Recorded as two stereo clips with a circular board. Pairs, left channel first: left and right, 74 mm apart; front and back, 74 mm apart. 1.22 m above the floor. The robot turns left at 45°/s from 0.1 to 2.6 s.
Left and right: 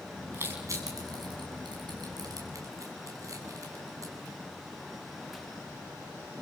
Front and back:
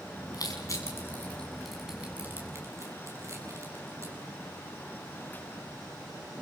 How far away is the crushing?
About 9 m.